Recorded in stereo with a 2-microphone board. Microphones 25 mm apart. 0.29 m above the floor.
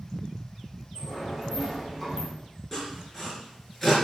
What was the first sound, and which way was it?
A sliding door, 20° left (ahead or behind).